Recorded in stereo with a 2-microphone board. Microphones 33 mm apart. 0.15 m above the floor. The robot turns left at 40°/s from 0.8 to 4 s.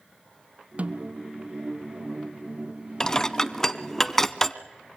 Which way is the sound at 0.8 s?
45° right (ahead or behind).